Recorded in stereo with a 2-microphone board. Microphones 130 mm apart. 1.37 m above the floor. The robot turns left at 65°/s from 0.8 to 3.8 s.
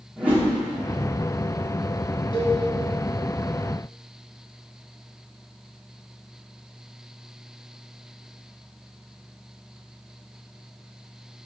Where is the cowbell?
40° left (ahead or behind), 1.9 m; by 2.6 s 30° left (ahead or behind), 1.9 m.